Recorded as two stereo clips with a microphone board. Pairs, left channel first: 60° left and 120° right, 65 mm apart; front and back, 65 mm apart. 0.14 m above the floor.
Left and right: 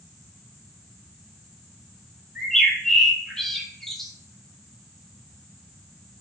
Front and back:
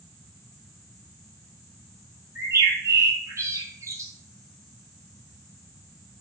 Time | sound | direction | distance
2.4 | a bird | 145° left | 0.9 m